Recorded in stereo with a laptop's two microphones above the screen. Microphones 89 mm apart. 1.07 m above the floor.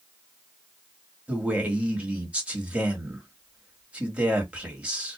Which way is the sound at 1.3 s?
15° right (ahead or behind).